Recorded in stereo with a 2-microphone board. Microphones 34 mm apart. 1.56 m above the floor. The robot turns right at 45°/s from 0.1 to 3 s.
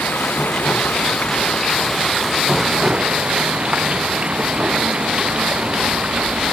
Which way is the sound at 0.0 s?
85° left.